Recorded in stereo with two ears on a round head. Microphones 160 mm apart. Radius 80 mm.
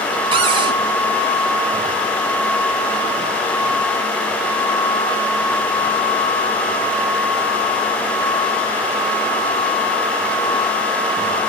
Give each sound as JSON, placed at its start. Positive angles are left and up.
{"t": 0.3, "sound": "a cupboard door", "side_deg": -30, "distance_m": 2.5}